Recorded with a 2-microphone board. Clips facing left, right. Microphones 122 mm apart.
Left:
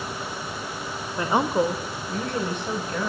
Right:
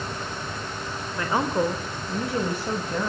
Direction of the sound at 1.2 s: 25° left (ahead or behind).